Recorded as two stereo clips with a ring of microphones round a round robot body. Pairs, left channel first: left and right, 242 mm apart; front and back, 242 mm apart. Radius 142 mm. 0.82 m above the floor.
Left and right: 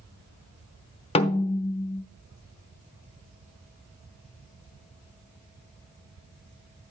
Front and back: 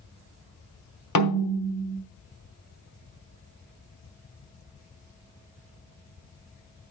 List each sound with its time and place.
1.1 s a snare drum: 25° left, 0.9 m